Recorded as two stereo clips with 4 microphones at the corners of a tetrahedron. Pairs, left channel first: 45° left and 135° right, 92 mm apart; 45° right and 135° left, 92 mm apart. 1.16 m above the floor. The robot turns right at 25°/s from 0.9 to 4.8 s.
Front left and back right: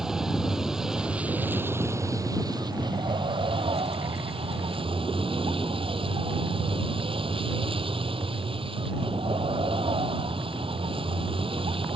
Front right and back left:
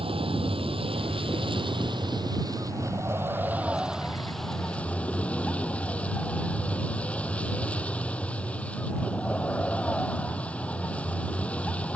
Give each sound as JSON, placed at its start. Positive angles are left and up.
{"t": 0.0, "sound": "a vehicle", "azimuth_deg": 140}